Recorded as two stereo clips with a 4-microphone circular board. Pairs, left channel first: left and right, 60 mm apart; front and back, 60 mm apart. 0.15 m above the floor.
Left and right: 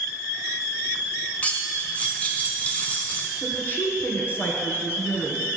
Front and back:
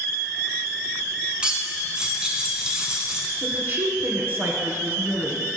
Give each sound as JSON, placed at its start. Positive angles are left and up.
{"t": 1.4, "sound": "cutlery clinking", "azimuth_deg": 125, "distance_m": 0.9}
{"t": 3.4, "sound": "a woman speaking", "azimuth_deg": 140, "distance_m": 1.8}